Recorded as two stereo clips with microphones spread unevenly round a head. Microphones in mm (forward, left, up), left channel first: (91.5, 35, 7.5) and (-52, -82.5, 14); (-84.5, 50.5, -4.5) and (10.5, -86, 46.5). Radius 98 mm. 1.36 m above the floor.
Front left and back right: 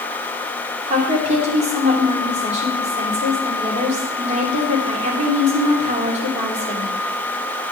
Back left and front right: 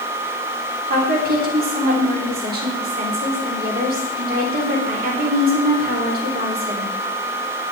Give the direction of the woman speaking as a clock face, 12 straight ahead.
3 o'clock.